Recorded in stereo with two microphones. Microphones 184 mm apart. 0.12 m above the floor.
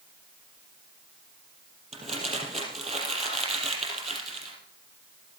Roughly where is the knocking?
I don't hear knocking.